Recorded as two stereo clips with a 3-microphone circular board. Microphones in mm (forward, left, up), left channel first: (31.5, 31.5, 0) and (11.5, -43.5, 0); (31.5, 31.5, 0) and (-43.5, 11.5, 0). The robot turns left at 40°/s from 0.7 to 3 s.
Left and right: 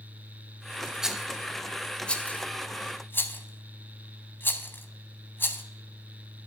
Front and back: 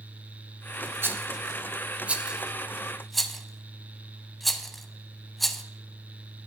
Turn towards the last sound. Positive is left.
turn(degrees=100)